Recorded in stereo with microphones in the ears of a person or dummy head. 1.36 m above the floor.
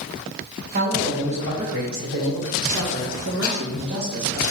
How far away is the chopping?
About 0.9 m.